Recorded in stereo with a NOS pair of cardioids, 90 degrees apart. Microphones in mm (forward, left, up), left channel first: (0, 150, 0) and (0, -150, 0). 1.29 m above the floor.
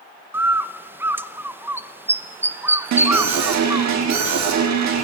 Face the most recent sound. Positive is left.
turn(degrees=-65)